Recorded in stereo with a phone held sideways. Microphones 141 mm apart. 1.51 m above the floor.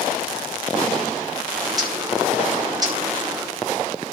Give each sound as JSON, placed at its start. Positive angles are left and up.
{"t": 1.6, "sound": "a bird", "side_deg": -25, "distance_m": 2.0}